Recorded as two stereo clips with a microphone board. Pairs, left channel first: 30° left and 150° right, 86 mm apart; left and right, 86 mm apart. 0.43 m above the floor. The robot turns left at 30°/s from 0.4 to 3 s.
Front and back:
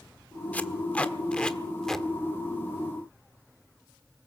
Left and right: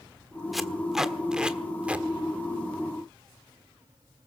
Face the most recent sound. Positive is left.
turn(degrees=-75)